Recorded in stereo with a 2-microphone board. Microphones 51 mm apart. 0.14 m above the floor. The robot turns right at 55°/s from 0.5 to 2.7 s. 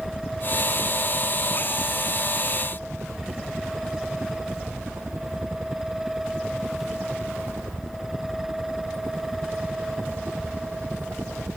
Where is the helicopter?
30° left (ahead or behind); by 11.6 s 70° right (ahead or behind).